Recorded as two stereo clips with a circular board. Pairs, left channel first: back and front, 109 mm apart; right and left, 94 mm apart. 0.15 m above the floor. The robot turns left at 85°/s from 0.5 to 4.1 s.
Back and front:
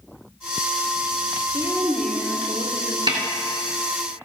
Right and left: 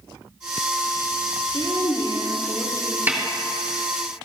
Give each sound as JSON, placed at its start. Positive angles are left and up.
{"t": 1.5, "sound": "a woman speaking", "azimuth_deg": -45, "distance_m": 3.5}
{"t": 3.1, "sound": "a snare drum", "azimuth_deg": 30, "distance_m": 3.0}